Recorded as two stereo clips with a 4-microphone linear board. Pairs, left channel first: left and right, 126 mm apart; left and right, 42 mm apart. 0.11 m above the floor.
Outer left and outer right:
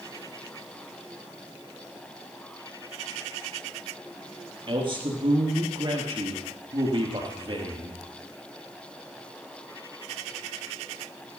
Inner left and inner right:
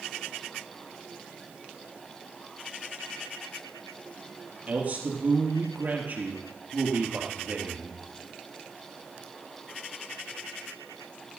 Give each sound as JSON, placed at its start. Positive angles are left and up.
{"t": 4.7, "sound": "a man speaking", "side_deg": -45, "distance_m": 3.0}